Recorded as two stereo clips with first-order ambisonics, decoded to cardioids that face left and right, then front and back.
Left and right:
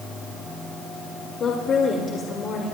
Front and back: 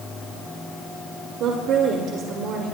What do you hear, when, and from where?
1.4 s a woman speaking: 145° left, 2 m